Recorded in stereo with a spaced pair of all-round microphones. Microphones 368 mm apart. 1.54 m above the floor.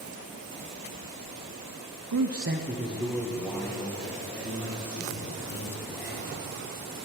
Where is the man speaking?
65° right (ahead or behind), 0.7 m; by 6.3 s 20° left (ahead or behind), 5 m.